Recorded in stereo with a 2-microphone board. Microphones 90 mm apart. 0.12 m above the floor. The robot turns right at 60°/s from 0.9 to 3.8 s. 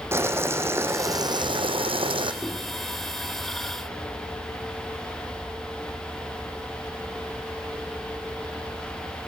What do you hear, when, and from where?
0.1 s boiling: 150° right, 1.0 m; by 2.3 s 65° right, 1.0 m
2.4 s a microwave: 10° left (ahead or behind), 2.5 m; by 2.5 s 15° left (ahead or behind), 2.5 m